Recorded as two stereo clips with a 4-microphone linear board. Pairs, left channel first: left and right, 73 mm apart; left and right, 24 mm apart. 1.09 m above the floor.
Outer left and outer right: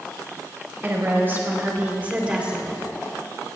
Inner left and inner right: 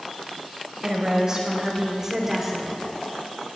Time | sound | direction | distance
0.8 | a woman speaking | 35° right (ahead or behind) | 4 m